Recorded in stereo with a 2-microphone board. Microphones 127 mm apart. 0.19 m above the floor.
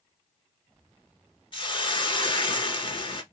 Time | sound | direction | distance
1.5 | a hiss | 40° left (ahead or behind) | 0.7 m